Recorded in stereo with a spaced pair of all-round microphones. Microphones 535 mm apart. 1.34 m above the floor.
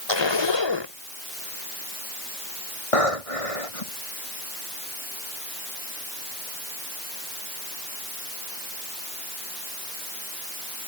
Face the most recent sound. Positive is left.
turn(degrees=85)